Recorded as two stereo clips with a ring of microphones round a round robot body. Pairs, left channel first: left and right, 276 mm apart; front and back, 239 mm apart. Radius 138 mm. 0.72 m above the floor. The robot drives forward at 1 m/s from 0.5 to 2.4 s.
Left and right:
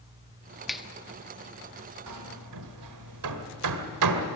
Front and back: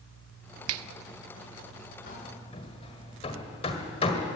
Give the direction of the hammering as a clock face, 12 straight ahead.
2 o'clock.